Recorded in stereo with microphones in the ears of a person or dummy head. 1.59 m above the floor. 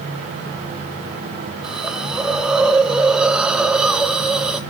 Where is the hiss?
5° right (ahead or behind), 0.7 m.